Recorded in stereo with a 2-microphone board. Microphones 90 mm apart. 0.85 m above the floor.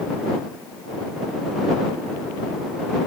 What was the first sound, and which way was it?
Only background noise.